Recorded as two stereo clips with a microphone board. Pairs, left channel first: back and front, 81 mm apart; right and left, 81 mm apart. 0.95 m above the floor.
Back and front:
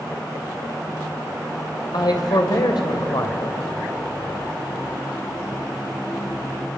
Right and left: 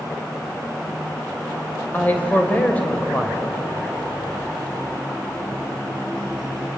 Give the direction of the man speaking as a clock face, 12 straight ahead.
5 o'clock.